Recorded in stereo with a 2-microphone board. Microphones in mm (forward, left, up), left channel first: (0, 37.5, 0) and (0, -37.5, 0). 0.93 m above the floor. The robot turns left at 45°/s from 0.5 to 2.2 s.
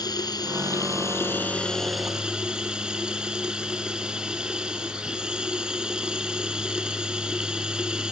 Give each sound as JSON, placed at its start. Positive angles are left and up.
{"t": 0.0, "sound": "running water", "azimuth_deg": 65}